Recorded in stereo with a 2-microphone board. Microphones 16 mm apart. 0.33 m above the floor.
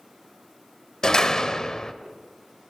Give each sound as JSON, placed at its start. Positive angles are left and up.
{"t": 1.0, "sound": "a door slam", "side_deg": 35, "distance_m": 1.1}